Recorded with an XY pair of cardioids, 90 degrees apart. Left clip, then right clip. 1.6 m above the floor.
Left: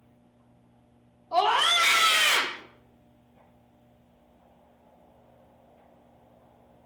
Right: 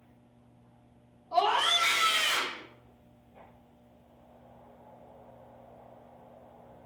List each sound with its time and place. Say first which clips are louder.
1.3 s a scream: left 3 dB; 35° left, 1.0 m; by 2.6 s 80° left, 1.1 m